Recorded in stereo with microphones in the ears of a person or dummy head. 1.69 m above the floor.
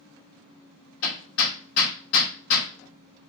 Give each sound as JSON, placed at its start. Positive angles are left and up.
{"t": 1.0, "sound": "hammering", "side_deg": 65, "distance_m": 2.5}